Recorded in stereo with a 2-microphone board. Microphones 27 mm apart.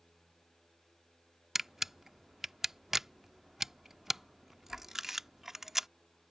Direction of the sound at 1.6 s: 15° right (ahead or behind).